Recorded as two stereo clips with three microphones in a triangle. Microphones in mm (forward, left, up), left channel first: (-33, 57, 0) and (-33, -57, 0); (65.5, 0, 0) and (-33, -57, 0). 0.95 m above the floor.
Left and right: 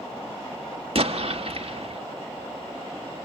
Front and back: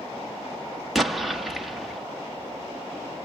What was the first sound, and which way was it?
An explosion, 60° right.